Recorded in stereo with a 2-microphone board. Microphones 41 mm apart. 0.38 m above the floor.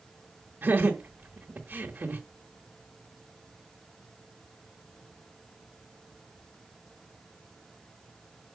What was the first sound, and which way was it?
Laughter, 45° right (ahead or behind).